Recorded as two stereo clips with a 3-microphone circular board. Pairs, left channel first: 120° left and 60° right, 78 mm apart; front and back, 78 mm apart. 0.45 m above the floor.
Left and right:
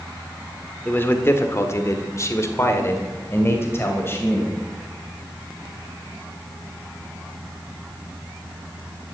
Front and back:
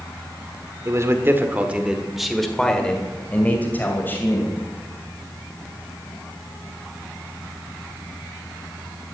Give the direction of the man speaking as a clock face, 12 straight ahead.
6 o'clock.